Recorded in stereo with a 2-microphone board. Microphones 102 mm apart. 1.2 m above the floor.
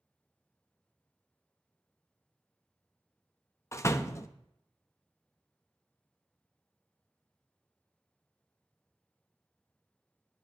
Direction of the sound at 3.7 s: 30° left (ahead or behind).